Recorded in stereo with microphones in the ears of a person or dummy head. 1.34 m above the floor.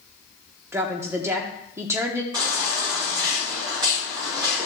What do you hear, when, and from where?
0.7 s a woman speaking: 15° right (ahead or behind), 0.8 m
2.3 s a baby crying: 20° right (ahead or behind), 5.5 m